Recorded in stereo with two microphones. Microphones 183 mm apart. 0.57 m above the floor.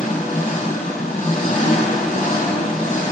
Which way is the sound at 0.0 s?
40° left (ahead or behind).